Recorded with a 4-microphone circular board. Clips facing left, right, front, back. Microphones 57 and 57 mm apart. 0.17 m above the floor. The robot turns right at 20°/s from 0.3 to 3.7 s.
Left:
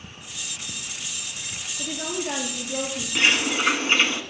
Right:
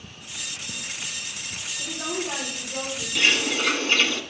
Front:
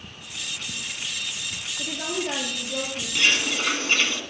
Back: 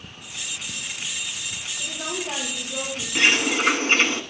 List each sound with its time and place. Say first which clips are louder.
1.8 s a woman speaking: left 1 dB, front 2 dB; 35° left, 4 m; by 3.0 s 60° left, 4 m
3.1 s a bird: left 1 dB, back 3 dB; 130° left, 1.1 m; by 4.2 s 145° left, 1.1 m